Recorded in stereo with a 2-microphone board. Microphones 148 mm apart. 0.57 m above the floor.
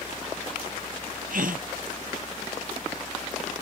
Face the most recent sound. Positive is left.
turn(degrees=-75)  # may be behind; listen again after turning